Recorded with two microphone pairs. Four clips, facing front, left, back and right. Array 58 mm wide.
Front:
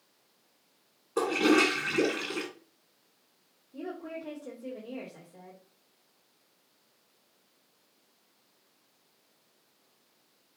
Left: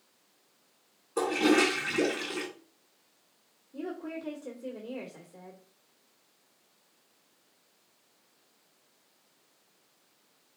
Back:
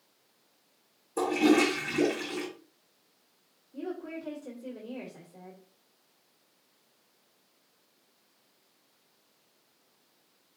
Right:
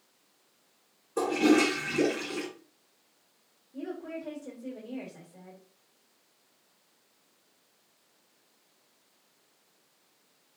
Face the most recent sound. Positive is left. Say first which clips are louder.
# even, back 1 dB
turn(degrees=60)